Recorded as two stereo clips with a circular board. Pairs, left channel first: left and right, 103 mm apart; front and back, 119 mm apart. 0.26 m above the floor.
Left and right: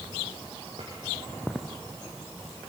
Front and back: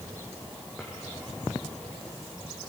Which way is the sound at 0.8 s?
90° right.